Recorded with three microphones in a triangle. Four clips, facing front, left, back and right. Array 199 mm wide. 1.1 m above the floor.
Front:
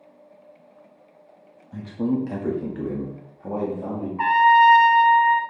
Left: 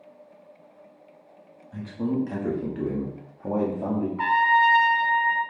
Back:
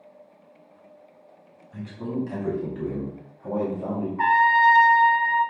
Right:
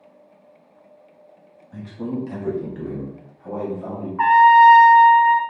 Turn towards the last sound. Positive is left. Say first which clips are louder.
# right 10 dB, front 4 dB
turn(degrees=-85)